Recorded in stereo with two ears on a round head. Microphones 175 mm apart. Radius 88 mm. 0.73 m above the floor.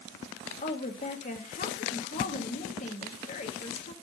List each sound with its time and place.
0.6 s a woman speaking: 40° left (ahead or behind), 1.1 m